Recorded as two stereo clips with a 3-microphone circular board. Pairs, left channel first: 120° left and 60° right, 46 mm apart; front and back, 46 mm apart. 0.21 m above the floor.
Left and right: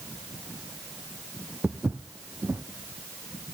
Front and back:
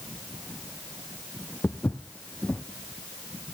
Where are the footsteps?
40° right, 1.0 m.